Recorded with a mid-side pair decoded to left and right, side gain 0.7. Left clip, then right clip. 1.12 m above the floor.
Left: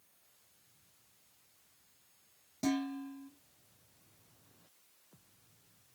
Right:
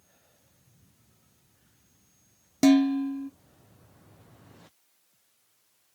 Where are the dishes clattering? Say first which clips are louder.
Right 14 dB; 60° right, 0.5 m.